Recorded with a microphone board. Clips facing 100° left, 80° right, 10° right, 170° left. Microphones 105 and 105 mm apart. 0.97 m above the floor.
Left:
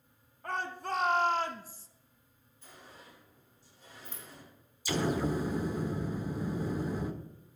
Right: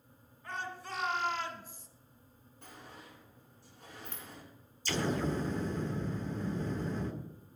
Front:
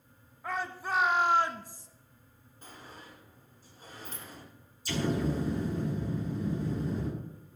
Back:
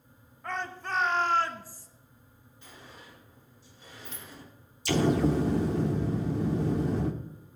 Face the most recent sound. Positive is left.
turn(degrees=180)